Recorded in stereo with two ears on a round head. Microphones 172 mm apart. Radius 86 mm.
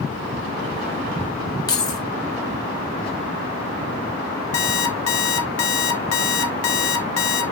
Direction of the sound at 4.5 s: 80° left.